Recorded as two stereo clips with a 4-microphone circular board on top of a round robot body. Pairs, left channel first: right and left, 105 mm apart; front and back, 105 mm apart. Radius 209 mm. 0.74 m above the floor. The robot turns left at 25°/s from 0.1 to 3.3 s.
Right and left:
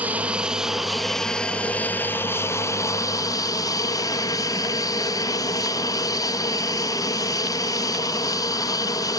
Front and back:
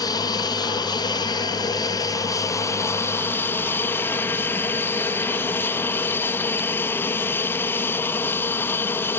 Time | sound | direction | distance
0.0 | an aircraft | 20° left | ?